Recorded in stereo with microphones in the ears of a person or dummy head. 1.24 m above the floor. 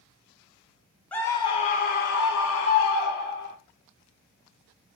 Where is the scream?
5° left (ahead or behind), 0.6 m; by 3.5 s 65° left (ahead or behind), 1.3 m.